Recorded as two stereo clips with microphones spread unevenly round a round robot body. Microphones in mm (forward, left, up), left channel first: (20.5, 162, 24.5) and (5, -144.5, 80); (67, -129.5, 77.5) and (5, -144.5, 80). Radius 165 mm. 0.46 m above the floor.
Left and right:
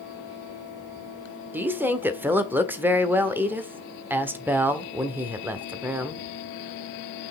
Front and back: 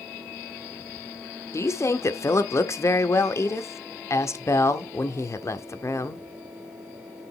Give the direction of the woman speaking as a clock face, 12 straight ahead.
12 o'clock.